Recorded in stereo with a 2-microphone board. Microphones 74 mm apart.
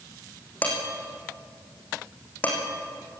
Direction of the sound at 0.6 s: 20° left (ahead or behind).